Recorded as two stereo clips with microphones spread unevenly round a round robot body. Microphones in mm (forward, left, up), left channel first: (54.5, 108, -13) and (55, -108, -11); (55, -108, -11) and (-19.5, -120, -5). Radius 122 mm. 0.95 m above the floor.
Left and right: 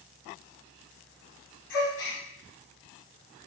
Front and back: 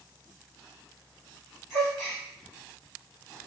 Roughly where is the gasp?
Left.